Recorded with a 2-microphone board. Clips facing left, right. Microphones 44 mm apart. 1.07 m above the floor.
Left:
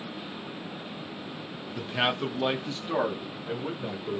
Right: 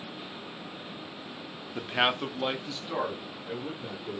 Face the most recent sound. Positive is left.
turn(degrees=40)  # may be behind; listen again after turning